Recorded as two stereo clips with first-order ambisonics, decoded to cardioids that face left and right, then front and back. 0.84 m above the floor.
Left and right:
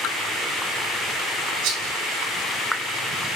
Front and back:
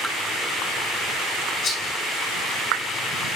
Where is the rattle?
60° right, 8.5 m.